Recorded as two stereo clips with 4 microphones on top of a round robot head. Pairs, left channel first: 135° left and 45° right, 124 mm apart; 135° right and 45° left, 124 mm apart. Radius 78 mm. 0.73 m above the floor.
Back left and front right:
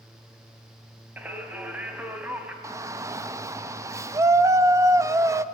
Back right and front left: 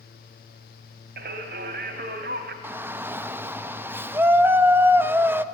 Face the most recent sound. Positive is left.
turn(degrees=-10)